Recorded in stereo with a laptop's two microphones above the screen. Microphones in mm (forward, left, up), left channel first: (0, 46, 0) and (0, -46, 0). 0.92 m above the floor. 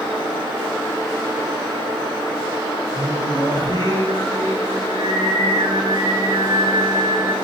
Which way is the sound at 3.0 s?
55° right (ahead or behind).